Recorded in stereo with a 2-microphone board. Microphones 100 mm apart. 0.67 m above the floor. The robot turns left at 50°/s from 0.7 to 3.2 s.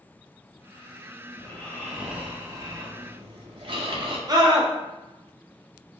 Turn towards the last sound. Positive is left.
turn(degrees=-40)  # may be behind; listen again after turning